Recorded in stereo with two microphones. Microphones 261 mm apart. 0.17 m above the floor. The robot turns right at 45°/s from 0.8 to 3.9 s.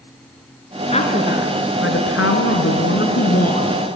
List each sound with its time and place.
0.9 s a woman speaking: 25° left, 2.5 m; by 3.8 s 160° left, 2.5 m